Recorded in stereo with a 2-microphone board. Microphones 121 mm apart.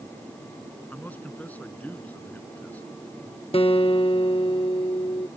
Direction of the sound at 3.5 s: 50° left (ahead or behind).